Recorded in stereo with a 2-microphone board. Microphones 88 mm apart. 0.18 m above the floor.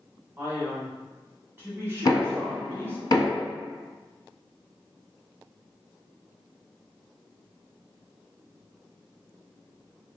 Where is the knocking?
45° left (ahead or behind), 0.9 m.